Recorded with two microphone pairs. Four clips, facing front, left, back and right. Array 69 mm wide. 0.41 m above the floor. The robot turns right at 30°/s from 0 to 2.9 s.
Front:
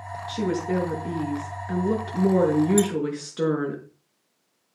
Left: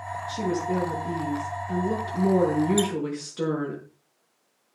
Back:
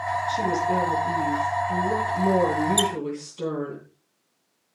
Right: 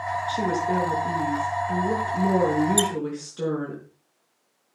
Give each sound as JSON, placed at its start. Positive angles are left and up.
{"t": 0.3, "sound": "a woman speaking", "azimuth_deg": -70, "distance_m": 5.5}
{"t": 2.8, "sound": "a squeak", "azimuth_deg": -145, "distance_m": 0.6}